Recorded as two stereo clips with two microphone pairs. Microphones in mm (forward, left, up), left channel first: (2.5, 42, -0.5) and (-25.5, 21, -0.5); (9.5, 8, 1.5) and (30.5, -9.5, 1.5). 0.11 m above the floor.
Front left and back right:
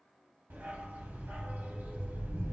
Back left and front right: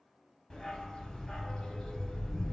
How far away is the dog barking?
About 0.8 m.